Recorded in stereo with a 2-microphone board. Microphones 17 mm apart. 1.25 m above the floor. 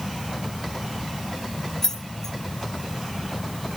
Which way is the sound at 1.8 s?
25° left (ahead or behind).